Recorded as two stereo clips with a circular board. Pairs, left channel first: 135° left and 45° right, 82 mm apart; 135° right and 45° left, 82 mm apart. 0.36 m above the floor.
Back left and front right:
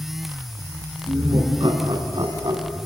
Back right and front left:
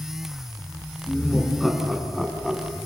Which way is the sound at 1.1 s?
45° right.